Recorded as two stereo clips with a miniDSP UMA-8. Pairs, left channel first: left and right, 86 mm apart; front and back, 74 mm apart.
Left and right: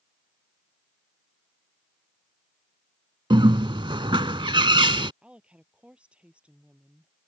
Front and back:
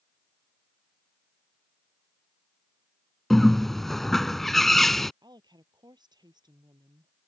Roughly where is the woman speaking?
Behind.